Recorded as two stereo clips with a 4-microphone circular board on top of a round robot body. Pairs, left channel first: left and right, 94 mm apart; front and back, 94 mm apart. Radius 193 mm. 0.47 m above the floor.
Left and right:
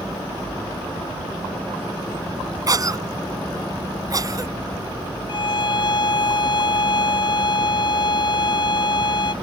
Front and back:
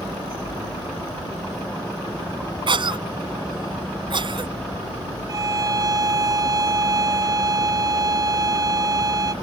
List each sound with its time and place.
2.7 s a cough: 140° right
5.3 s a violin: 130° left